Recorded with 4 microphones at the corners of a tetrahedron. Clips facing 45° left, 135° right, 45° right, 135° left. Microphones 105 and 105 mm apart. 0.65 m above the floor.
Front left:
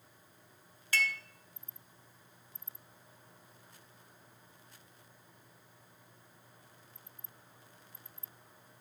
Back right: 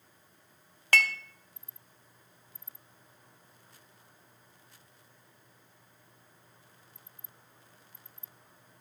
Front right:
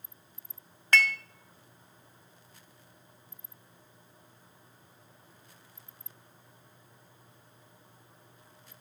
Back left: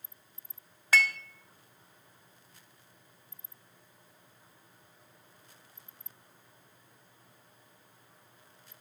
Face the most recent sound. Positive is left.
turn(degrees=-140)